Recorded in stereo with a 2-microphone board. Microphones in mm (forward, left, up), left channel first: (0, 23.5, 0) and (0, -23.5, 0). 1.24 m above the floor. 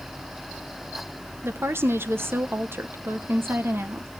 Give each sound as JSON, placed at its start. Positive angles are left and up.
{"t": 1.4, "sound": "a woman speaking", "side_deg": -55, "distance_m": 1.0}